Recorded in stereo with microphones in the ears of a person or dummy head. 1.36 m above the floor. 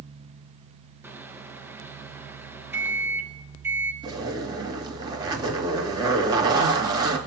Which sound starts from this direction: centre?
A microwave, at 1.0 s.